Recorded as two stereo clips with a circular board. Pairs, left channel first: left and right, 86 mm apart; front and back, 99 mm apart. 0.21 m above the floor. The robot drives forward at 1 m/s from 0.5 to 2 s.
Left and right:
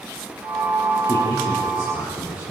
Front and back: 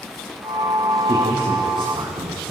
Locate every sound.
1.1 s a man speaking: 140° left, 8.5 m; by 2.5 s 145° left, 9 m